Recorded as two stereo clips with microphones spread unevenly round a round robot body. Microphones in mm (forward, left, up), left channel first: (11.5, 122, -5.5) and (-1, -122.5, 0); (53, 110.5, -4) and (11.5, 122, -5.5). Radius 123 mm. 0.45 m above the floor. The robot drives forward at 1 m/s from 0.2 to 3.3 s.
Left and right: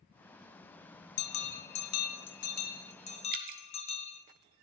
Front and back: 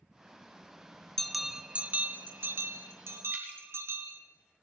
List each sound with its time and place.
1.2 s a bell: 65° left, 1.0 m; by 4.2 s 150° left, 2.0 m
3.3 s dripping: 145° right, 1.2 m